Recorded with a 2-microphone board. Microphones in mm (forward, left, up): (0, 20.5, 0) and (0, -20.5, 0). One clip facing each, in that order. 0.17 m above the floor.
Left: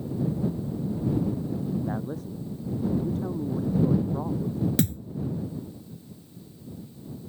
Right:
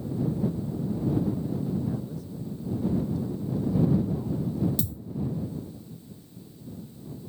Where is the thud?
65° left (ahead or behind).